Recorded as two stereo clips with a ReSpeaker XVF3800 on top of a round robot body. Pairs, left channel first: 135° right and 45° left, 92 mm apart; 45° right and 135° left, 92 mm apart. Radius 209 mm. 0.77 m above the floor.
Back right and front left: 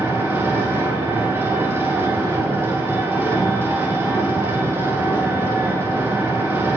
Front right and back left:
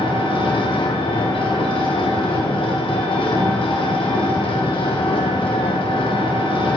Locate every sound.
0.0 s an engine running: 20° right, 1.6 m